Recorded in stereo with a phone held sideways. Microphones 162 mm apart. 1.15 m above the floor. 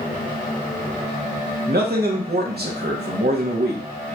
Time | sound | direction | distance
1.7 | a man speaking | 80° right | 0.8 m